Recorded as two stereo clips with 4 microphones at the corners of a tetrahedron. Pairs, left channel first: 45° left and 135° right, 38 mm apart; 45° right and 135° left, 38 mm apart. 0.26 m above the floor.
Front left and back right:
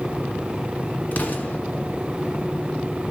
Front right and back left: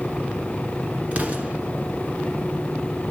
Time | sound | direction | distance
1.1 | an explosion | 85° left | 1.2 m